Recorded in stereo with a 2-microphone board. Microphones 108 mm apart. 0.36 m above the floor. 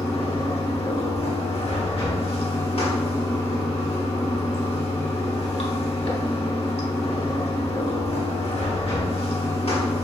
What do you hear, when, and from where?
0.0 s running water: 70° left (ahead or behind), 0.9 m